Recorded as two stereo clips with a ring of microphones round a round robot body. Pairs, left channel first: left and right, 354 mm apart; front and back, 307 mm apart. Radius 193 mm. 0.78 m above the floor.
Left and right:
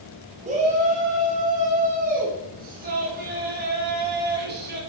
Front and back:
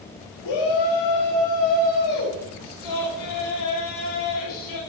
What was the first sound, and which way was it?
A shout, 20° right.